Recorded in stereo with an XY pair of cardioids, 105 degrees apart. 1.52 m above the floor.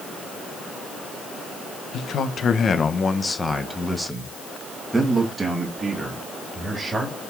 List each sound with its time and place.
1.9 s a man speaking: 65° left, 1.4 m; by 7.2 s 30° right, 3.5 m